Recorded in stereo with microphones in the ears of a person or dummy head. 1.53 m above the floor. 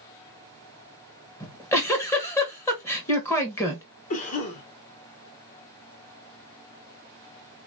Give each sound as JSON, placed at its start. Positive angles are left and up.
{"t": 1.4, "sound": "a giggle", "side_deg": 15, "distance_m": 1.2}
{"t": 4.1, "sound": "a cough", "side_deg": 40, "distance_m": 1.6}